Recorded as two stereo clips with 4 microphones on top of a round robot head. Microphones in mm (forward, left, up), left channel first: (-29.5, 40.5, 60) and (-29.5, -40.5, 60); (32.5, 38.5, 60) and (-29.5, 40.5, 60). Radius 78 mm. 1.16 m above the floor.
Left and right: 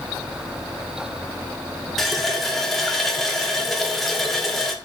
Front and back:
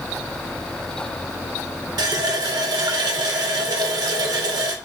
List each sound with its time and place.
2.0 s a running tap: straight behind, 0.6 m